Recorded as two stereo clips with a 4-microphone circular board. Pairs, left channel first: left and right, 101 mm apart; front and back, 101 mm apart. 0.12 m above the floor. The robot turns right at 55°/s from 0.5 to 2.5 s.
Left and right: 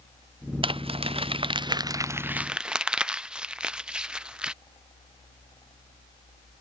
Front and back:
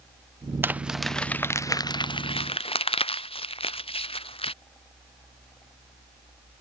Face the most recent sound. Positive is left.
turn(degrees=-10)